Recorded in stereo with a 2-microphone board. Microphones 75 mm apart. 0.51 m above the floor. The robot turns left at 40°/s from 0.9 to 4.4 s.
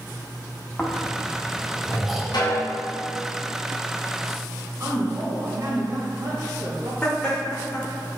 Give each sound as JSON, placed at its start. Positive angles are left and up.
{"t": 0.8, "sound": "snoring", "side_deg": 20, "distance_m": 1.1}
{"t": 2.3, "sound": "a snare drum", "side_deg": 75, "distance_m": 3.0}
{"t": 4.8, "sound": "a woman speaking", "side_deg": -40, "distance_m": 2.5}
{"t": 7.0, "sound": "laughter", "side_deg": 15, "distance_m": 1.7}